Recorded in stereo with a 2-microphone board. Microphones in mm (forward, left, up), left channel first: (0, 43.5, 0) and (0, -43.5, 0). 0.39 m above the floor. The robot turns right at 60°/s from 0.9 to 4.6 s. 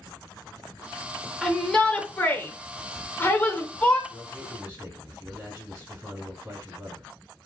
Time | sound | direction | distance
1.4 | a shout | centre (ahead or behind) | 0.8 m
4.1 | a man speaking | straight behind | 1.6 m